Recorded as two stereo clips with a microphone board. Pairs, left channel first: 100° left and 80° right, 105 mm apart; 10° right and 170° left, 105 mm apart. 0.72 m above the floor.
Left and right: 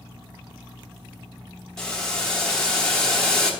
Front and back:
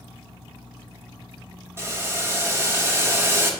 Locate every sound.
1.8 s boiling: 175° left, 1.0 m